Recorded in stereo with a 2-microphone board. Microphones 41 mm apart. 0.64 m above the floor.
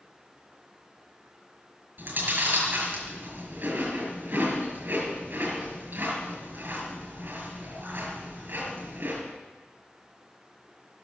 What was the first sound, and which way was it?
Chewing, 50° right (ahead or behind).